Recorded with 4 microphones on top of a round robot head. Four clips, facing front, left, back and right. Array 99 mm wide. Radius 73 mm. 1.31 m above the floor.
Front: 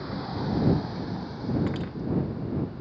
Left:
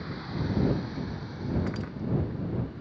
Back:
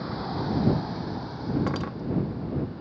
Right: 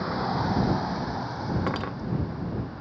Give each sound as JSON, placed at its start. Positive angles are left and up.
{"t": 0.0, "sound": "a vehicle", "azimuth_deg": -90}
{"t": 1.7, "sound": "cutlery clinking", "azimuth_deg": -120}